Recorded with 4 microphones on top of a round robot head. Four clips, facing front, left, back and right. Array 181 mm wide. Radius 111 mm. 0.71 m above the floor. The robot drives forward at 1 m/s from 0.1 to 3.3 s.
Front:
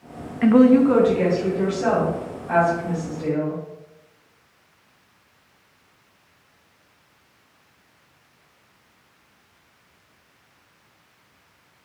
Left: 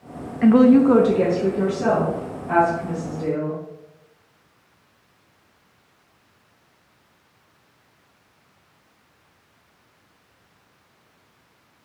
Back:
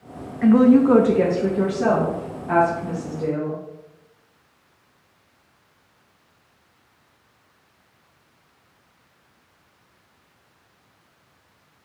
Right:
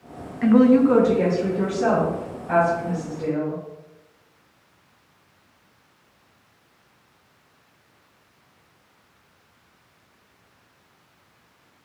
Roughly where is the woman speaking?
Ahead left.